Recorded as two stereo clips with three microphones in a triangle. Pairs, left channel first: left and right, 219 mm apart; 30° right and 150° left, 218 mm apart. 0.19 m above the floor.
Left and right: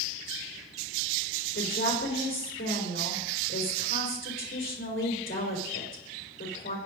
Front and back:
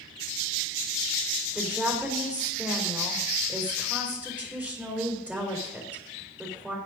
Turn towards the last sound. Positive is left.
turn(degrees=70)